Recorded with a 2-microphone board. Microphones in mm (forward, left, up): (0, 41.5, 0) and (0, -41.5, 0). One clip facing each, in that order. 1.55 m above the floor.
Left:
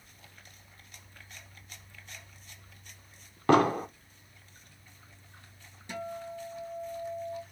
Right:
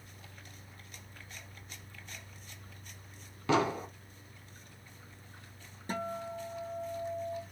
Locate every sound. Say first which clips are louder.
3.5 s an explosion: left 6 dB; 50° left (ahead or behind), 0.6 m
5.9 s a guitar: right 1 dB; 40° right (ahead or behind), 0.7 m